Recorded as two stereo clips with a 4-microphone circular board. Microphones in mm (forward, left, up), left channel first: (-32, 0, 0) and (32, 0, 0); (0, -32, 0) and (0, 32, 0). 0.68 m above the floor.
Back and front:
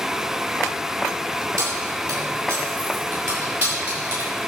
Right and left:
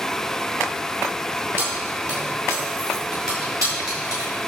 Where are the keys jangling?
40° left, 5 m; by 4.3 s 60° left, 6.5 m.